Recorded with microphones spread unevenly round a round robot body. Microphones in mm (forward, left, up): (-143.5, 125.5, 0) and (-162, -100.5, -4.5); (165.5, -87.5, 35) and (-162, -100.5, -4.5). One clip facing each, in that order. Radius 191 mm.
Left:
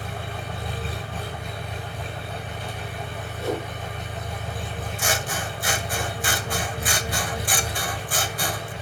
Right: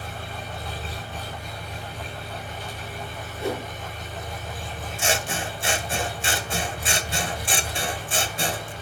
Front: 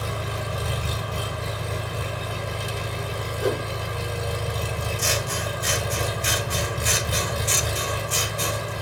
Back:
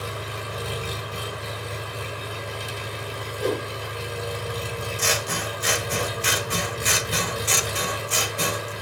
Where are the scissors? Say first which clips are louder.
Right 2 dB, even; 160° right, 1.6 m.